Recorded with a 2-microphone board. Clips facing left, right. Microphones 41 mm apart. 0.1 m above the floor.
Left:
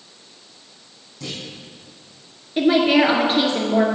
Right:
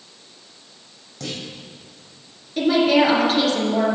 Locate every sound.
1.2 s a clunk: 70° right (ahead or behind), 4 m
2.6 s a woman speaking: 25° left (ahead or behind), 1.8 m